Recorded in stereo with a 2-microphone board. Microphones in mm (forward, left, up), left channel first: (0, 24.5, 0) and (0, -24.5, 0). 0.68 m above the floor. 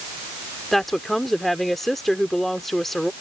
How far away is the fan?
I don't hear a fan.